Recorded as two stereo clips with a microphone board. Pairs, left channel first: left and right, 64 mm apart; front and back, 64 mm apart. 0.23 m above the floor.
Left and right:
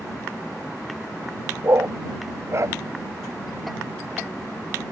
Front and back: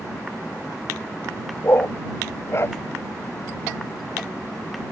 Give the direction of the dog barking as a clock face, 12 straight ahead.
2 o'clock.